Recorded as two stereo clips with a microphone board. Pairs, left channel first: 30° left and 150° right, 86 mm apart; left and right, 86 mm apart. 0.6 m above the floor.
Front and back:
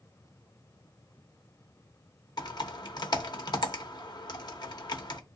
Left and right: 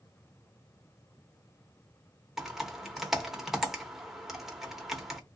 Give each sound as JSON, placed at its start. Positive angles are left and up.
{"t": 2.4, "sound": "typing on a keyboard", "azimuth_deg": -5, "distance_m": 0.8}